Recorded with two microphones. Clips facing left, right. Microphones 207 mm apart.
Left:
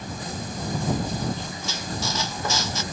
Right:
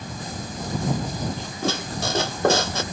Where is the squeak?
65° right (ahead or behind).